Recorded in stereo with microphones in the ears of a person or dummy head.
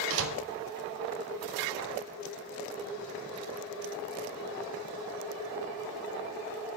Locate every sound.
0.1 s a door slam: 75° right (ahead or behind), 0.9 m